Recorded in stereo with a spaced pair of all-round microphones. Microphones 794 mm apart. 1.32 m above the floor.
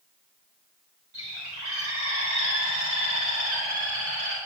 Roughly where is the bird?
Right.